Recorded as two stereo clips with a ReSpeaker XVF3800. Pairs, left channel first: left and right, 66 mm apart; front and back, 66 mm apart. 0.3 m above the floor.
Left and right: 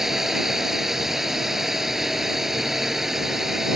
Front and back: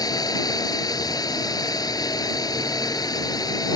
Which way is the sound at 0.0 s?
5° right.